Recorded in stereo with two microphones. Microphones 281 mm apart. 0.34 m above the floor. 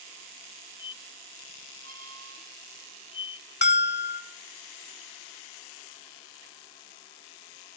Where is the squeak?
55° right (ahead or behind), 2.0 m.